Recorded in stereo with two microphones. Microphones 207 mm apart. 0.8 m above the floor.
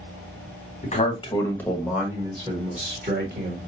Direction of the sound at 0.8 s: 35° left (ahead or behind).